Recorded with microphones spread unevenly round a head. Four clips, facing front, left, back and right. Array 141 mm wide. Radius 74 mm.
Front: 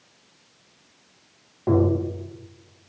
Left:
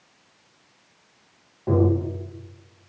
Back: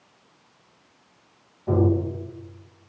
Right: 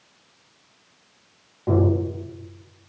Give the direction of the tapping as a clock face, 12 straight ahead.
12 o'clock.